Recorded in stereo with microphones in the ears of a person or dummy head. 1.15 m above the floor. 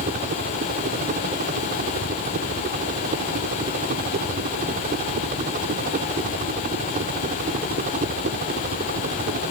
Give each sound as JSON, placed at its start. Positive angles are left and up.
{"t": 0.0, "sound": "a helicopter", "side_deg": -45}